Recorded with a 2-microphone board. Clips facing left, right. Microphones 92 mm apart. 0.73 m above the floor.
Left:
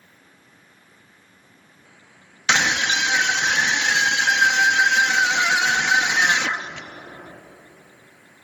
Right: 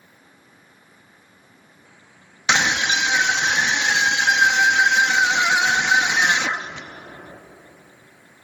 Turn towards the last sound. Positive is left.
turn(degrees=-15)  # may be behind; listen again after turning